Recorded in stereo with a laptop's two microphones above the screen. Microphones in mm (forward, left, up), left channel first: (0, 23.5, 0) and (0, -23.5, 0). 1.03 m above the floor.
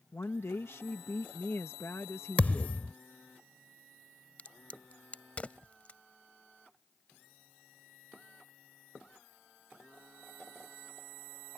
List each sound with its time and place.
0.1 s a woman speaking: 60° left (ahead or behind)
2.4 s a thud: 30° left (ahead or behind)
4.4 s a crack: 30° left (ahead or behind)